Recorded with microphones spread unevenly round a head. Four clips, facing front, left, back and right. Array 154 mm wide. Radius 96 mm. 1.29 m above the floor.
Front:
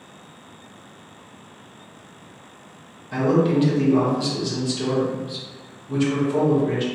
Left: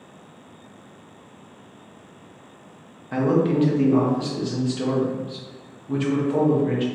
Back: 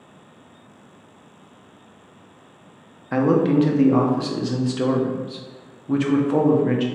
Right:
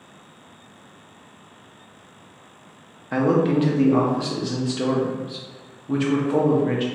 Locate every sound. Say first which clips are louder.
3.1 s a man speaking: right 1 dB, back 2 dB; 130° right, 0.7 m